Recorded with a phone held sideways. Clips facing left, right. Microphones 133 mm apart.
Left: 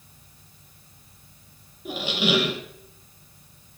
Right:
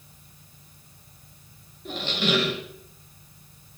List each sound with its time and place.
1.9 s a squeak: 10° left (ahead or behind), 0.8 m